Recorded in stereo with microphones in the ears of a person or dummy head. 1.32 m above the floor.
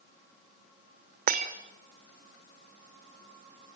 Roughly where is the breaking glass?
Right.